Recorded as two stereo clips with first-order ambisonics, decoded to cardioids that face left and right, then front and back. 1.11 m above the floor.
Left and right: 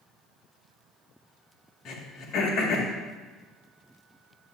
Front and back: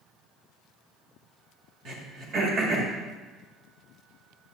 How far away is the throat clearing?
About 1.8 m.